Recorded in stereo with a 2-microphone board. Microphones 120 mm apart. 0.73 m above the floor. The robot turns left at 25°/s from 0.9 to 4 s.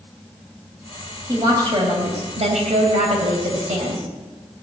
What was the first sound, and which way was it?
A woman speaking, 30° right.